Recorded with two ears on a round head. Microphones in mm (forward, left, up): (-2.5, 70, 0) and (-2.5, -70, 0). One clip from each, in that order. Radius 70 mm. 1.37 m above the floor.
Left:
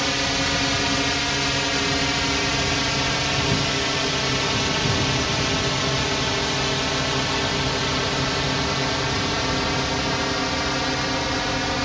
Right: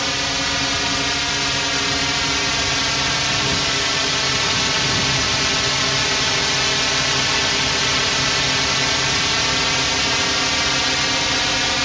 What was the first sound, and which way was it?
A drone, 20° right (ahead or behind).